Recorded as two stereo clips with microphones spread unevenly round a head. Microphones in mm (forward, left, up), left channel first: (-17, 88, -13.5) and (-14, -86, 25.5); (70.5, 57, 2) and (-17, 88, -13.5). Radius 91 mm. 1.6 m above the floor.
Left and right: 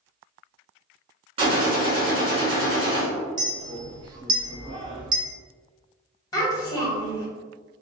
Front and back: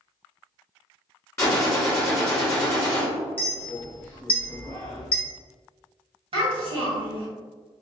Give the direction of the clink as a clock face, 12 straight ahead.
2 o'clock.